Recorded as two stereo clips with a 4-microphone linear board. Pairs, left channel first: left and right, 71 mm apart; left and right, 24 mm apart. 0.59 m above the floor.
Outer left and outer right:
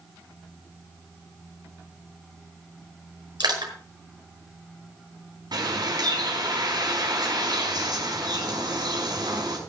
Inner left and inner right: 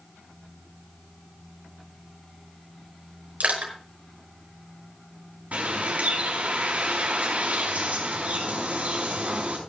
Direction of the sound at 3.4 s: 75° right (ahead or behind).